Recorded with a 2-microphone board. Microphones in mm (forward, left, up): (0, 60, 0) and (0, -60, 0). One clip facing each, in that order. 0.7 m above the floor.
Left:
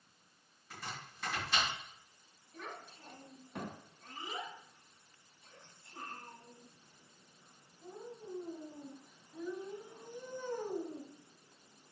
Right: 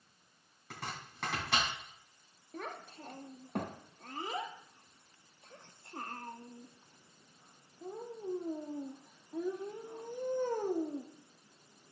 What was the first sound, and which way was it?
Chopping, 70° right (ahead or behind).